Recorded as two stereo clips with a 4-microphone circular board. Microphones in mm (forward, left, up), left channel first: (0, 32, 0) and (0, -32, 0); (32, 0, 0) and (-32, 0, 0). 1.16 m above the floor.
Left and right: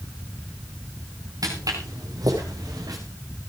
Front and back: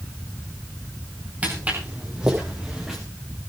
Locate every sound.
1.4 s footsteps: 115° right, 7.5 m; by 3.0 s 95° right, 6.5 m